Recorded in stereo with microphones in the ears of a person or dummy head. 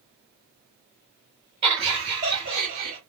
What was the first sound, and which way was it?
Laughter, 30° right (ahead or behind).